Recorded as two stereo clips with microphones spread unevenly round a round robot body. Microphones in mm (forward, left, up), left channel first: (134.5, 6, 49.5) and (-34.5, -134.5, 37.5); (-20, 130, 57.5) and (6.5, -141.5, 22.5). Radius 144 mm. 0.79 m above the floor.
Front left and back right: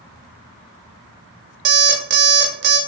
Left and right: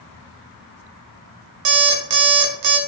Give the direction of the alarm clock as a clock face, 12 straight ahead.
3 o'clock.